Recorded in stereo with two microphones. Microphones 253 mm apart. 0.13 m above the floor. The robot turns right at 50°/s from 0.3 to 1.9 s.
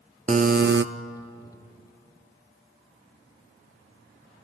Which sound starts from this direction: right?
A buzzer, at 0.3 s.